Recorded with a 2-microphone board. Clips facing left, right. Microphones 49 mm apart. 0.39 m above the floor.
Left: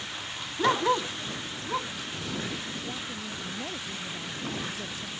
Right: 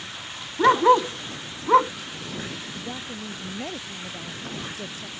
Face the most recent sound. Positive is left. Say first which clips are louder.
# right 2 dB
turn(degrees=-20)  # may be behind; listen again after turning